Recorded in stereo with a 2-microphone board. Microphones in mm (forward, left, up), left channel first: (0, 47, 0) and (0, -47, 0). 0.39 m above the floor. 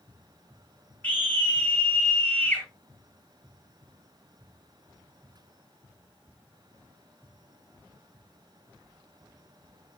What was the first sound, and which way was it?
A scream, 20° left (ahead or behind).